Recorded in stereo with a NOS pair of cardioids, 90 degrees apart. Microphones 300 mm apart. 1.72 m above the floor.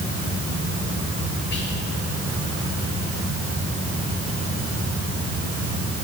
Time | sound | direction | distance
1.5 | whispering | 35° left | 3.5 m